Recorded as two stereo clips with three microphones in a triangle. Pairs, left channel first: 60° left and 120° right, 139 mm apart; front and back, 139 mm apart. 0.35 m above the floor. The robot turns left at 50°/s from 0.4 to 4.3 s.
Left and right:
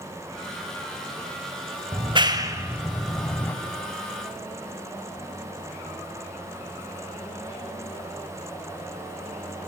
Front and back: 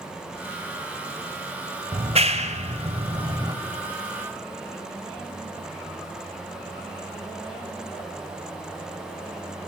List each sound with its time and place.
1.9 s a clap: 150° right, 1.6 m; by 3.5 s 130° left, 1.6 m